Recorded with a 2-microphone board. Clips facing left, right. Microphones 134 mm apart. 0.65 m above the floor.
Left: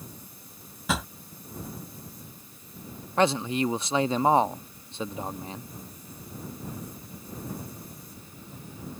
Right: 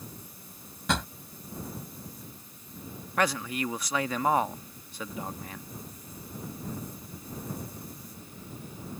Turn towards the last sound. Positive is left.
turn(degrees=25)  # may be behind; listen again after turning